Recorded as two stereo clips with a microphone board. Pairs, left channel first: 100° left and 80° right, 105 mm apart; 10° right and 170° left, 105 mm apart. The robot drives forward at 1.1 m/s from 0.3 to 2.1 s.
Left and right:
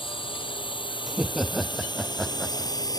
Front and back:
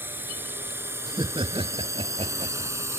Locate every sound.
0.0 s a drone: 105° left; by 3.0 s 120° left
1.1 s laughter: 165° right; by 2.9 s 175° right